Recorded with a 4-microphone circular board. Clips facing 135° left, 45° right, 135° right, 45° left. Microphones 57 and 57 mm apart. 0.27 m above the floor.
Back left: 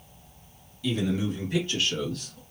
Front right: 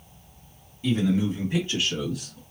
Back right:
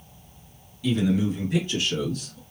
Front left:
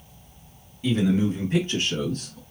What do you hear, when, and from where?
0.8 s a man speaking: straight ahead, 2 m; by 2.4 s 30° left, 1.8 m